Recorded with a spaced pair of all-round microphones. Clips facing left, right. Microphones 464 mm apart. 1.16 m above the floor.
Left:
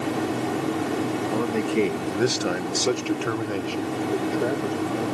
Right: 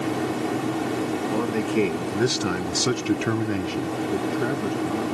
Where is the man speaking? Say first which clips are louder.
Even; centre (ahead or behind), 2 m; by 5.2 s 20° right (ahead or behind), 2.5 m.